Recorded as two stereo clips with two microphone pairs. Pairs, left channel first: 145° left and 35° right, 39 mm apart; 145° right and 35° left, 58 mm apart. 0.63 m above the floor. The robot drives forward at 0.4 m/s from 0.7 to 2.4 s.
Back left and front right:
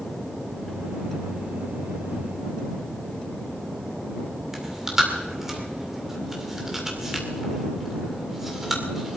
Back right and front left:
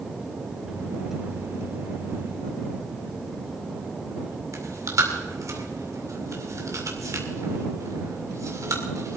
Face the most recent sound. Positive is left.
turn(degrees=45)